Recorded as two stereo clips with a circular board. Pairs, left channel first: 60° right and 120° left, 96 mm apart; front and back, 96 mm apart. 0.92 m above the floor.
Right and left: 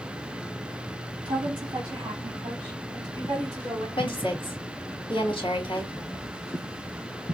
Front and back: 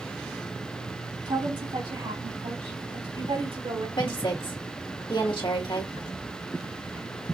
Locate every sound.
1.2 s a woman speaking: 165° left, 1.9 m; by 3.9 s straight behind, 3 m
4.0 s a woman speaking: 30° right, 1.8 m